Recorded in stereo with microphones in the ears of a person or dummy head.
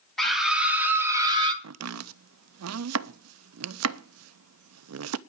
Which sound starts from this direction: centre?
A scream, at 0.2 s.